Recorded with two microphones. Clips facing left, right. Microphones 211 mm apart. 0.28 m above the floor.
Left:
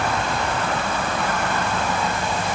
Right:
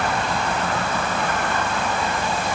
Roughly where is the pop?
I don't hear a pop.